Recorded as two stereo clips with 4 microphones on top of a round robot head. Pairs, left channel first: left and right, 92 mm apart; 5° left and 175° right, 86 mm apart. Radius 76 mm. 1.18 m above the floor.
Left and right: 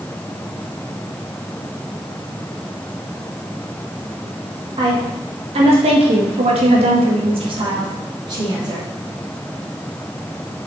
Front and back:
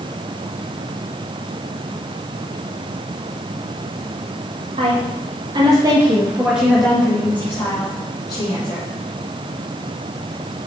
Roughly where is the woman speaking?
Behind right.